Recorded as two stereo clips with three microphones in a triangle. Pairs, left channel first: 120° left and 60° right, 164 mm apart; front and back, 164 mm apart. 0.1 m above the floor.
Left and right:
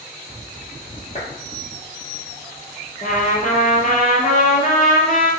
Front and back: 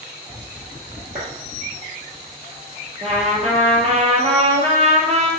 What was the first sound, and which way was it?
A clap, 160° left.